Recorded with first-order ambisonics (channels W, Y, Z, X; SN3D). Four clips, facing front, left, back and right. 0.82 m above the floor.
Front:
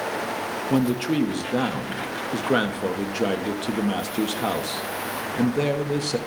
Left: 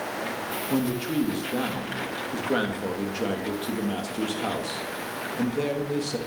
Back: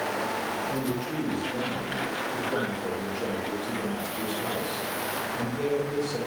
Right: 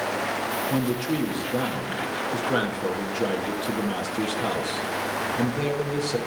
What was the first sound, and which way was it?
A man speaking, 5° right.